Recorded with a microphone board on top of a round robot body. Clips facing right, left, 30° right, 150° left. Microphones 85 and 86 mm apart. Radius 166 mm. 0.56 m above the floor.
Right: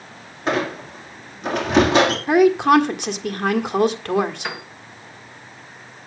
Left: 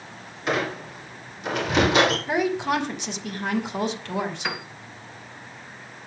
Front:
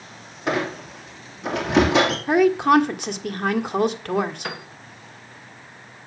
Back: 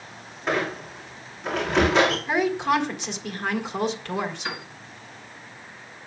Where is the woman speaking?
60° right, 1.6 m.